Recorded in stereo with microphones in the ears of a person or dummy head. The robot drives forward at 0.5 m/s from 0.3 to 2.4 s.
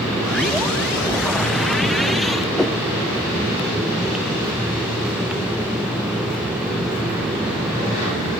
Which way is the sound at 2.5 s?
Centre (ahead or behind).